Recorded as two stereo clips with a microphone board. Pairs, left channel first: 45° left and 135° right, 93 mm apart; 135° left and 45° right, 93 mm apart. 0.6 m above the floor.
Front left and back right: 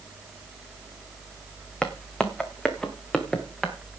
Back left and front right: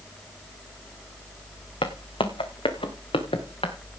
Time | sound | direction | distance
1.8 | footsteps | 125° left | 1.8 m